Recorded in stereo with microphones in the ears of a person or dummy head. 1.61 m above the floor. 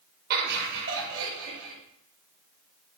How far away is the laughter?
About 1.7 m.